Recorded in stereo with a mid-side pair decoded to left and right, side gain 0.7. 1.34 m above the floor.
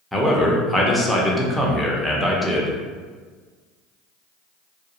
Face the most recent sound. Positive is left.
turn(degrees=0)